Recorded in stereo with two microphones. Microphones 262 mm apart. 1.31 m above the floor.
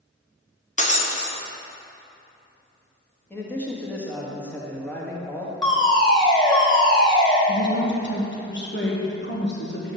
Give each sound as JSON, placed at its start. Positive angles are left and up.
{"t": 0.8, "sound": "breaking glass", "side_deg": 30, "distance_m": 0.8}
{"t": 3.3, "sound": "a man speaking", "side_deg": 5, "distance_m": 1.4}
{"t": 5.6, "sound": "a fire alarm", "side_deg": 20, "distance_m": 1.7}
{"t": 7.5, "sound": "a woman speaking", "side_deg": 45, "distance_m": 1.2}